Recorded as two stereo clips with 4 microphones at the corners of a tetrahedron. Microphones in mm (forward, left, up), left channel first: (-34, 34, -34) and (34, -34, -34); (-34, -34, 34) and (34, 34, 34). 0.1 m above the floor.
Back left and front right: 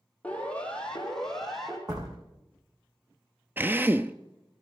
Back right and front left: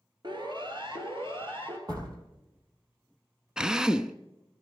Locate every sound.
0.2 s a siren: 65° left, 2.5 m; by 1.8 s 45° left, 3.5 m
1.9 s a door slam: straight ahead, 3.5 m
3.6 s a drill: 25° right, 0.7 m